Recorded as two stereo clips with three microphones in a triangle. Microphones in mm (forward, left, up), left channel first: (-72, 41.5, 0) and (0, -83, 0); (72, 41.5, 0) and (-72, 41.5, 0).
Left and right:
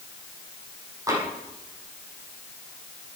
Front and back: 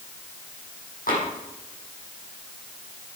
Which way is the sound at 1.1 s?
5° left.